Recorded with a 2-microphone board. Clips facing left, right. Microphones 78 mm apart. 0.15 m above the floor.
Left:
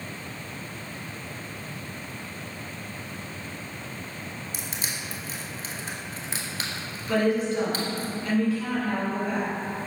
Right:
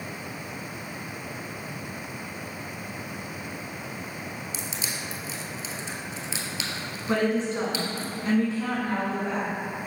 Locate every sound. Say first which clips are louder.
4.5 s crushing: right 1 dB; 45° left (ahead or behind), 1.0 m
7.1 s a woman speaking: left 1 dB; 30° right (ahead or behind), 1.8 m